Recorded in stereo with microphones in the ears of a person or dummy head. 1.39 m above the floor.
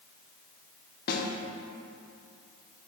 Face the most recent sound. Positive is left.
turn(degrees=55)  # may be behind; listen again after turning